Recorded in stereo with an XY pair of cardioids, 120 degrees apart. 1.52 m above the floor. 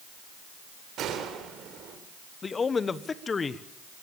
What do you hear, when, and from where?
1.0 s a gunshot: 65° right, 3.5 m
2.4 s a man speaking: 30° left, 1.1 m